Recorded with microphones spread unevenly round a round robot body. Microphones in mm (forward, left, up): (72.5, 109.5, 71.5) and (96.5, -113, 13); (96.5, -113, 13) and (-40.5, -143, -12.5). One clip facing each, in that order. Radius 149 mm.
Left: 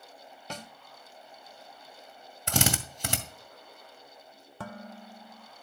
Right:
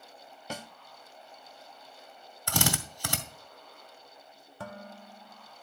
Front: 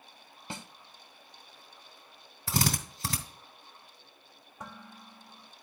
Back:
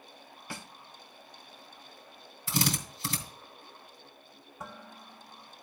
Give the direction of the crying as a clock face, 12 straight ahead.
I don't hear crying.